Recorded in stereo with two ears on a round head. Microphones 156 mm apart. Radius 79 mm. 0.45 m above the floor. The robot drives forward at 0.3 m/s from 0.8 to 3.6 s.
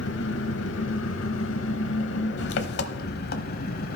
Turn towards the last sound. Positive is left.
turn(degrees=55)  # may be behind; listen again after turning